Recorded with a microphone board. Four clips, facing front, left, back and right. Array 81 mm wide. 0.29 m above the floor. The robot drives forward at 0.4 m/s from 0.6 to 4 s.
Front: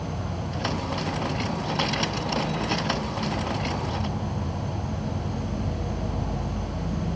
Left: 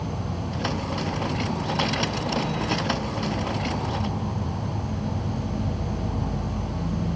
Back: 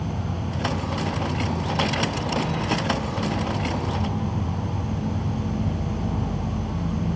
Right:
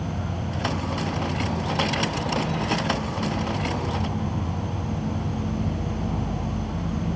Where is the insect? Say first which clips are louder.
Even, back 2 dB; 85° right, 3 m; by 7.2 s 110° right, 3.5 m.